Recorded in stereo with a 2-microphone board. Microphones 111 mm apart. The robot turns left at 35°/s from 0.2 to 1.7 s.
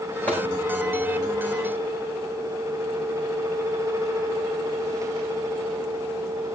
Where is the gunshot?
15° left (ahead or behind), 8.5 m; by 0.5 s 20° left (ahead or behind), 8.5 m.